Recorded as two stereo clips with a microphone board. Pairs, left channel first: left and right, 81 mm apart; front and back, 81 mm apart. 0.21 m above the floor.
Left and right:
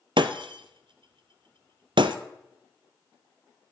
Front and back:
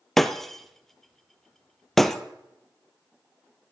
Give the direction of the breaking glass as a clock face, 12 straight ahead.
3 o'clock.